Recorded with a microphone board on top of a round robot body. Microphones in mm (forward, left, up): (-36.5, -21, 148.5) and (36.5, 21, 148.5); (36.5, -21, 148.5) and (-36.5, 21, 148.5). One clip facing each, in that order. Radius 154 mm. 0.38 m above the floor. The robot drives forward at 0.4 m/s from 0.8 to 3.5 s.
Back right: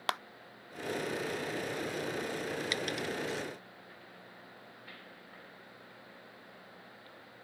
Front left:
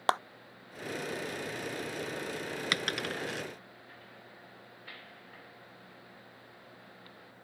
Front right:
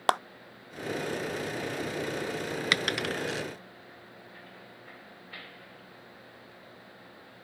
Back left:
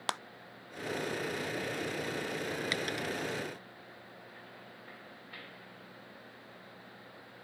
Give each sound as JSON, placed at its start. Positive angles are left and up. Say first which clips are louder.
{"t": 0.1, "sound": "a clap", "louder": "front left 7 dB, front right 11 dB", "azimuth_deg": -15}
{"t": 2.7, "sound": "a dropped coin", "louder": "front left 1 dB, front right 5 dB", "azimuth_deg": -5}